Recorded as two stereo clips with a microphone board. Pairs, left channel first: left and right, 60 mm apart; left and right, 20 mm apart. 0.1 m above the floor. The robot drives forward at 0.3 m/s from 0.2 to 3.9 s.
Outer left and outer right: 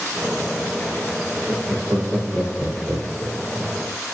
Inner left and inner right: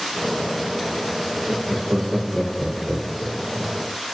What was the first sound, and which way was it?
Laughter, 30° right (ahead or behind).